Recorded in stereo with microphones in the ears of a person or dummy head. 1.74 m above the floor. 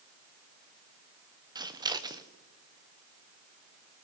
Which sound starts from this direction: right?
Scissors, at 1.6 s.